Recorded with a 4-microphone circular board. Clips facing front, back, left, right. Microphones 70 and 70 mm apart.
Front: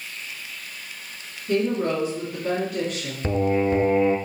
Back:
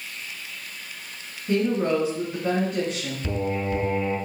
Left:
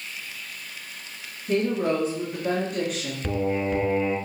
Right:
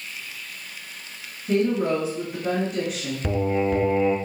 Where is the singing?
10° right, 0.5 m.